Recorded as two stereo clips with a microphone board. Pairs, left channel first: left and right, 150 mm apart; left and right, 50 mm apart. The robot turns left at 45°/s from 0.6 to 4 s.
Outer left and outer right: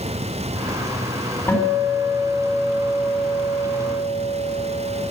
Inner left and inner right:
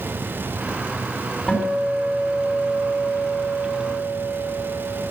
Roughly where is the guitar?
Ahead.